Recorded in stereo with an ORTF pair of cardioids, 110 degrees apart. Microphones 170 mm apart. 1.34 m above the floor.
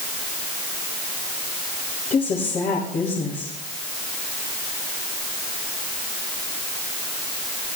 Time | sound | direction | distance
2.1 | a woman speaking | 45° left | 6.5 m